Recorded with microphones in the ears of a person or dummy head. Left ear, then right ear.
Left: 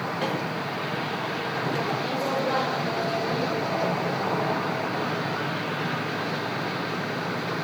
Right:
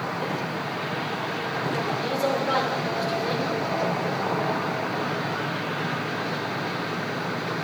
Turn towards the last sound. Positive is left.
turn(degrees=-35)  # may be behind; listen again after turning